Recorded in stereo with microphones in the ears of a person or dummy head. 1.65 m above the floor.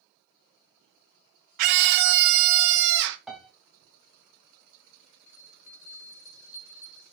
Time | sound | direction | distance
1.6 | a scream | 45° right (ahead or behind) | 0.7 m
3.3 | a piano | 5° right (ahead or behind) | 1.9 m
5.3 | a bell | 35° left (ahead or behind) | 3.5 m